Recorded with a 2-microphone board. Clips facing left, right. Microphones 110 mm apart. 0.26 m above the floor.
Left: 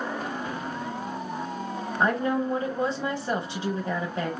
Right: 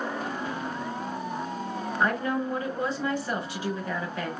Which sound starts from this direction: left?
A woman speaking, at 2.0 s.